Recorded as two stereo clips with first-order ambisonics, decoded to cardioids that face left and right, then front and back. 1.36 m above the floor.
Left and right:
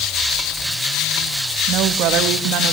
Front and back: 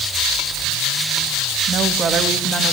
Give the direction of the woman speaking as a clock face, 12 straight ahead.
4 o'clock.